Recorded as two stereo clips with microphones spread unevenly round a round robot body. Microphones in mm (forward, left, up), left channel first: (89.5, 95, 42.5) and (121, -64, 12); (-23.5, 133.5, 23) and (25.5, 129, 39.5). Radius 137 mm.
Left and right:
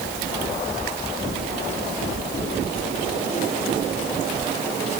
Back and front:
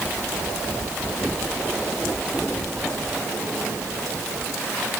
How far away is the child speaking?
I don't hear a child speaking.